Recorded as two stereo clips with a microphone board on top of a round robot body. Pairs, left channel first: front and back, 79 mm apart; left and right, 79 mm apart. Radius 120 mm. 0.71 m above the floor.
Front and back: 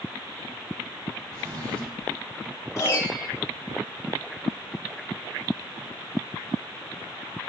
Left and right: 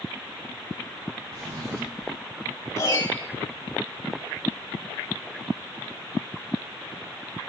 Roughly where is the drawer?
Behind right.